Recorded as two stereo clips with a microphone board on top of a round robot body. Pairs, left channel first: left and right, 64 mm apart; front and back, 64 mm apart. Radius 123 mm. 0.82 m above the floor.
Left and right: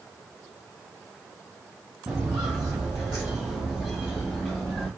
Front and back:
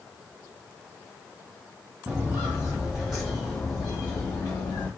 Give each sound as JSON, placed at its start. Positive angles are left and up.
{"t": 2.1, "sound": "footsteps", "azimuth_deg": -135, "distance_m": 1.1}